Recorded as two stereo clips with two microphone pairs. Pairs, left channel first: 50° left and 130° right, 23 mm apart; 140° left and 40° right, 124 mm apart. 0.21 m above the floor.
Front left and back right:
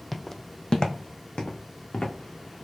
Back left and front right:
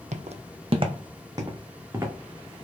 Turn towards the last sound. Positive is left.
turn(degrees=30)